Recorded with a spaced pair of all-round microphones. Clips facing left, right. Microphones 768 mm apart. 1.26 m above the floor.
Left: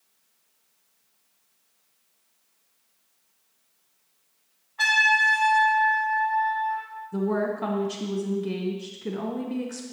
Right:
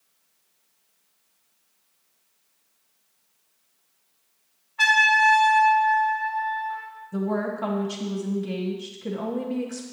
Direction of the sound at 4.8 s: 25° right (ahead or behind).